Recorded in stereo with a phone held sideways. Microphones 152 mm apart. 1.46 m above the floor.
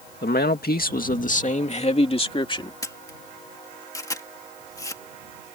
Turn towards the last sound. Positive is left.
turn(degrees=20)  # may be behind; listen again after turning